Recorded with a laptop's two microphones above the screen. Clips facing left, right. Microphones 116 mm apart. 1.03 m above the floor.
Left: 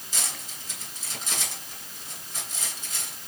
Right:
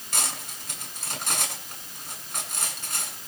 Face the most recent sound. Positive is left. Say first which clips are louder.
# right 5 dB
turn(degrees=-65)  # may be behind; listen again after turning